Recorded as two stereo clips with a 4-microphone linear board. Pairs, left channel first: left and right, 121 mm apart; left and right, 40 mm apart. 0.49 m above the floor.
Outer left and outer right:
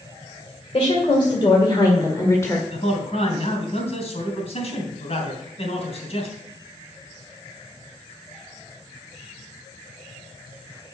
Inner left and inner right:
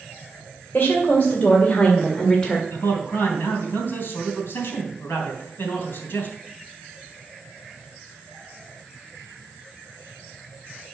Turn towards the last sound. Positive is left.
turn(degrees=55)  # may be behind; listen again after turning